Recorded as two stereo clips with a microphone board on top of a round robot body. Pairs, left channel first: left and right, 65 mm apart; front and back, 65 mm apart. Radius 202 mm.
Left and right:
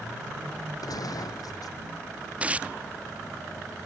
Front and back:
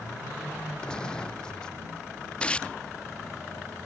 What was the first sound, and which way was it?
A gunshot, 75° left.